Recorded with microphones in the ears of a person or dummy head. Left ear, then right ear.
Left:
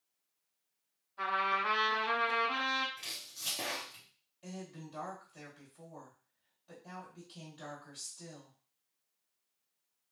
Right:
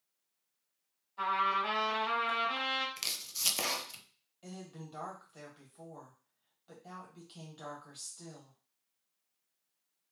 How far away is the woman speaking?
About 1.6 m.